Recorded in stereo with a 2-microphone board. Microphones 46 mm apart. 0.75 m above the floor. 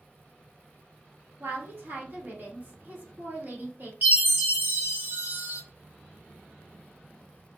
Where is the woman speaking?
45° right (ahead or behind), 1.4 m.